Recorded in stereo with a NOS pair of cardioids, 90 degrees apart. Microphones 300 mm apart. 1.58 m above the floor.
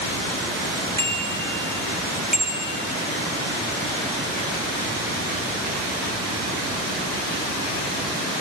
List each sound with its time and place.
1.0 s a bicycle bell: 10° left, 4.5 m; by 2.8 s 5° right, 4.5 m